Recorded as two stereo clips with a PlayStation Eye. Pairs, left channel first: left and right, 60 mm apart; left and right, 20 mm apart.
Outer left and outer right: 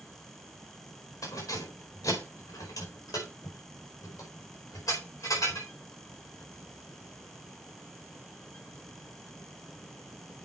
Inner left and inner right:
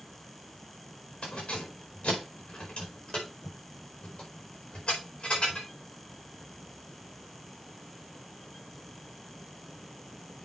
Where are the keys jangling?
80° left, 5 m; by 5.7 s 70° left (ahead or behind), 4.5 m.